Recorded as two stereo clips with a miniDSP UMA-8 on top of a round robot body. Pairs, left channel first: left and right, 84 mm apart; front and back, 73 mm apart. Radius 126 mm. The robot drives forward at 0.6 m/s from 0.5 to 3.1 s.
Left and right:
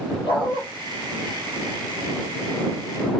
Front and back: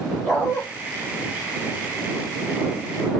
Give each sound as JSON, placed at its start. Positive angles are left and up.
{"t": 0.2, "sound": "a dog barking", "azimuth_deg": 90, "distance_m": 5.0}